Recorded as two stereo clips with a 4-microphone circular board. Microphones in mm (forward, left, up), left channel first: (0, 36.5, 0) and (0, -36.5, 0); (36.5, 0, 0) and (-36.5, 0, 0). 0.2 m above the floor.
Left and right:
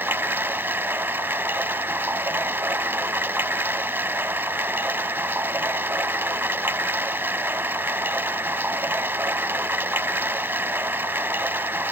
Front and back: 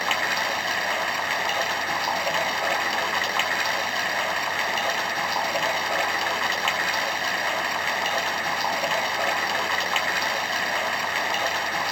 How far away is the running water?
About 0.8 m.